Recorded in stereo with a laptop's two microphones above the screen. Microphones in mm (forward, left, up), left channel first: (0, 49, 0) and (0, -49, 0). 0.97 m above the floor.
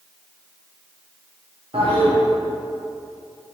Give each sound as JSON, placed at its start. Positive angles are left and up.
{"t": 1.7, "sound": "a toilet flushing", "side_deg": -80, "distance_m": 1.0}